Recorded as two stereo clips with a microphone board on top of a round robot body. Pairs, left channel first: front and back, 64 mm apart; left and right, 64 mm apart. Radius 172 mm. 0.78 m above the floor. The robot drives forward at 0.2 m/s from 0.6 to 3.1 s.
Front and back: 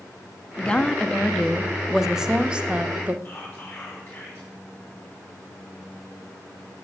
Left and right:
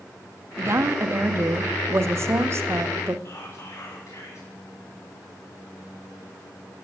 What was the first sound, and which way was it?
A woman speaking, 65° right.